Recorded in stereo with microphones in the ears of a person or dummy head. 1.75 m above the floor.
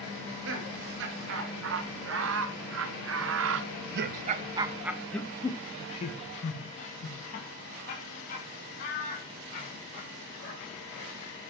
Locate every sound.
0.1 s laughter: 70° right (ahead or behind), 3 m; by 11.4 s 55° left (ahead or behind), 4.5 m